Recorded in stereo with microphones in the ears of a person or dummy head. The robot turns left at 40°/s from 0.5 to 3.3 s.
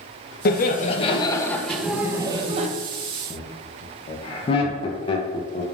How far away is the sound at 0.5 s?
About 0.6 m.